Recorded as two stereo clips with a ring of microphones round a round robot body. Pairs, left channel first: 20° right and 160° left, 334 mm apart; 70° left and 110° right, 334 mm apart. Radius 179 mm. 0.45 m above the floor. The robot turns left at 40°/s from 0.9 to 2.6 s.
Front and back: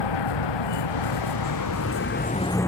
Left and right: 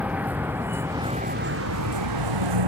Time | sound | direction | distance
0.0 | a vehicle | 25° right | ?